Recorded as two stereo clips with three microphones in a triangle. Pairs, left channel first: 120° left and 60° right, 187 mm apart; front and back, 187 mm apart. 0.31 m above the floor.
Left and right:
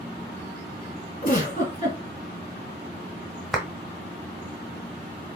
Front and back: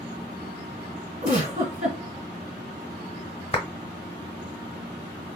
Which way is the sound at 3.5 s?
30° left.